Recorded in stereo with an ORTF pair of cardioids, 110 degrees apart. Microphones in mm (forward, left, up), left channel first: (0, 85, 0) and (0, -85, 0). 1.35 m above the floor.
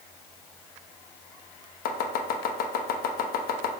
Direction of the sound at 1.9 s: 70° left.